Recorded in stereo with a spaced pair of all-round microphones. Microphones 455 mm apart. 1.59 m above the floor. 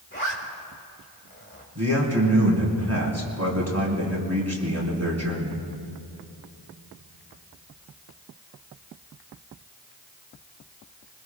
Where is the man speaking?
35° right (ahead or behind), 4 m.